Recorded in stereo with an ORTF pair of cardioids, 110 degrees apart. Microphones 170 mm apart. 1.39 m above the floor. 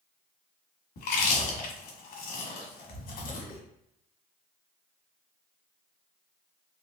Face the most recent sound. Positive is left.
turn(degrees=60)